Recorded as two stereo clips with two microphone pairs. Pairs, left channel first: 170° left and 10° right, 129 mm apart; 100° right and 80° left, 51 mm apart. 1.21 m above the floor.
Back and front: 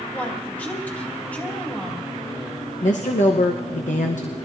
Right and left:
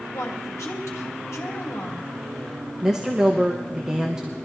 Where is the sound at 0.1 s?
110° right, 2 m.